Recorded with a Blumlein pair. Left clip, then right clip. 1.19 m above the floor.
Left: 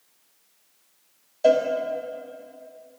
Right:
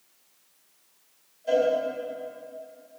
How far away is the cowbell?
About 1.6 m.